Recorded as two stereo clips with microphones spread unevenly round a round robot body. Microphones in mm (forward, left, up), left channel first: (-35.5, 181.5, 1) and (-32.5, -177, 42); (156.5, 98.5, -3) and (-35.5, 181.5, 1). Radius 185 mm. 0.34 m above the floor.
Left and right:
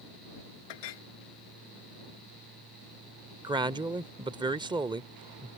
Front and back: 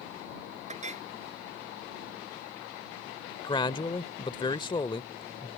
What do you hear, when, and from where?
0.7 s a clink: 100° left
3.4 s a man speaking: 15° right